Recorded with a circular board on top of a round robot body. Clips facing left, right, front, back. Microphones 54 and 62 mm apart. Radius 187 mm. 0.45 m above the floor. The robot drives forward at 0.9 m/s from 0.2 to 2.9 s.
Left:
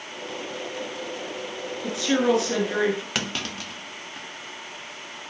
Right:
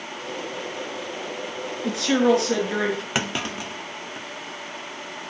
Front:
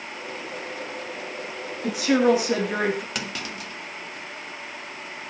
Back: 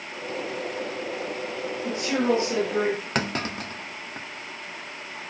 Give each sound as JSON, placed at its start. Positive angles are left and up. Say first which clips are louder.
{"t": 1.8, "sound": "a woman speaking", "louder": "right 3 dB, front 5 dB", "azimuth_deg": 0, "distance_m": 8.0}
{"t": 3.1, "sound": "a clunk", "louder": "right 3 dB, back 5 dB", "azimuth_deg": -155, "distance_m": 1.7}